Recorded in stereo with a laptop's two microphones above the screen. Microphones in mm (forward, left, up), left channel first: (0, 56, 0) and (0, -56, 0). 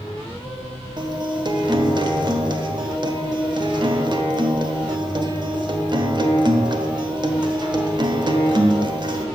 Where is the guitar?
45° right (ahead or behind), 1.2 m.